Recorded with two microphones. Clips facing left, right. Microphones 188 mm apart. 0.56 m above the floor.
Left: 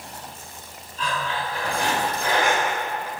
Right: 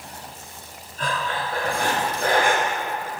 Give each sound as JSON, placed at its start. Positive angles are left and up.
{"t": 1.0, "sound": "breathing", "side_deg": -50, "distance_m": 1.8}